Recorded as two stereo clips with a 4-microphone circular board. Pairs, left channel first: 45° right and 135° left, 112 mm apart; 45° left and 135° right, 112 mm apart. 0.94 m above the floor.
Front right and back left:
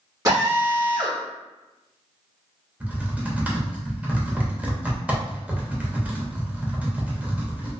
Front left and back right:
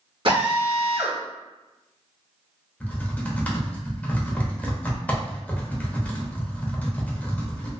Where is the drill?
170° right, 1.2 m.